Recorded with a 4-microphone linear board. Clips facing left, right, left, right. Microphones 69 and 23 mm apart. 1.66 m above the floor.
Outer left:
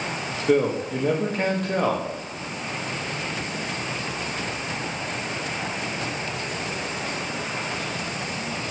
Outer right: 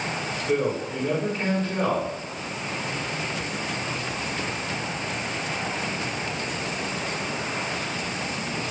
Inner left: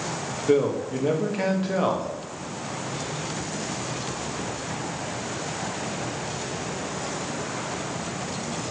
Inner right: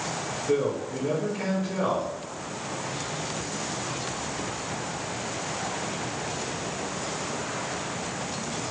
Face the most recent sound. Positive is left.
turn(degrees=65)  # may be behind; listen again after turning